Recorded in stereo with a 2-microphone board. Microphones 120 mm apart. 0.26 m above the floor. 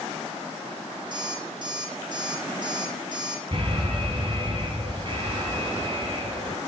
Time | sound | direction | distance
1.1 | an alarm clock | 40° right (ahead or behind) | 4.5 m
3.5 | an alarm | 50° right (ahead or behind) | 2.5 m